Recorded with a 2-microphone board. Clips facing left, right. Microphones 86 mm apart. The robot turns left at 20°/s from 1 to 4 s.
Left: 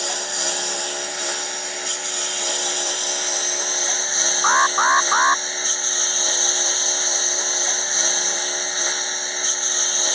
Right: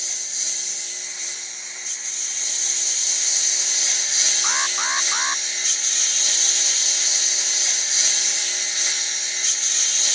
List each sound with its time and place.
0.0 s a lawn mower: 100° left; by 10.2 s 40° left
4.4 s an alarm: 50° left (ahead or behind)